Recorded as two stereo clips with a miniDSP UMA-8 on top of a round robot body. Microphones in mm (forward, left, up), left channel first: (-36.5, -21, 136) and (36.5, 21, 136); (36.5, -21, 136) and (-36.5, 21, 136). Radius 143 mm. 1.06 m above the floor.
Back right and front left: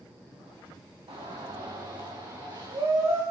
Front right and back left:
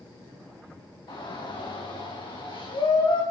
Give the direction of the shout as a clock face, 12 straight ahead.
12 o'clock.